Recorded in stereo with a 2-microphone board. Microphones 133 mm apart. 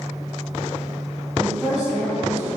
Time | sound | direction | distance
1.4 | a woman speaking | 5° right (ahead or behind) | 2.5 m